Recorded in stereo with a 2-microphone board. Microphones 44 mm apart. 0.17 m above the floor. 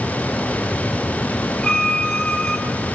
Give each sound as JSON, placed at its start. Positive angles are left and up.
{"t": 1.6, "sound": "a violin", "side_deg": 15, "distance_m": 4.5}